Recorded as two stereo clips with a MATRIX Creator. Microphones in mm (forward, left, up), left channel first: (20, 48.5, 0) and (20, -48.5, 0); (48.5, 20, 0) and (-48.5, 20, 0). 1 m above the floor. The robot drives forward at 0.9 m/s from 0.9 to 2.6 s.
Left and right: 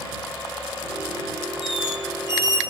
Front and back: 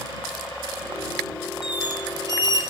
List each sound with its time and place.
1.6 s a squeak: 100° left, 1.1 m; by 2.6 s 135° left, 1.5 m